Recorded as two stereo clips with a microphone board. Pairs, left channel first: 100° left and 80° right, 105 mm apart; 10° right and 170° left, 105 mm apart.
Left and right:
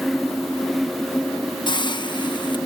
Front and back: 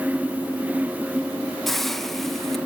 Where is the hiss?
75° left, 0.8 m.